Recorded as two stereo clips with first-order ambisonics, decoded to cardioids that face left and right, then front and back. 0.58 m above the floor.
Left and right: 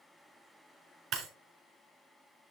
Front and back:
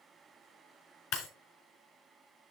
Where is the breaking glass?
40° right, 4 m.